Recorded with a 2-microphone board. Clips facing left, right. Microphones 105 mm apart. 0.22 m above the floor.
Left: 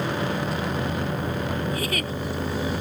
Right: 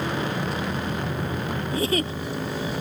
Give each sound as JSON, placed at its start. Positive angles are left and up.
{"t": 1.7, "sound": "a giggle", "side_deg": -30}